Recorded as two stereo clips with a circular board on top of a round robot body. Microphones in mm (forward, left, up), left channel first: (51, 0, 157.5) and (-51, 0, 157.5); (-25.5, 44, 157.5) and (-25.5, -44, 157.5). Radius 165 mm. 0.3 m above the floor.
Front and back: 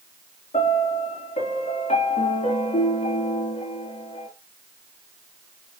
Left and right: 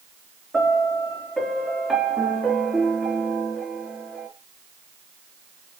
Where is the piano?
Straight ahead, 4 m.